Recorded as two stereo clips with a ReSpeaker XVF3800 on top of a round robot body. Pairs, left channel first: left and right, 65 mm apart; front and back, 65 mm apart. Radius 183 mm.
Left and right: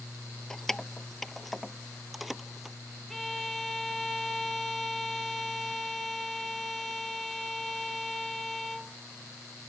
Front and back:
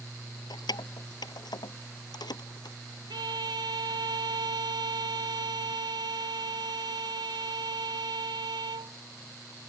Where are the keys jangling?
5° left; by 2.8 s 5° right.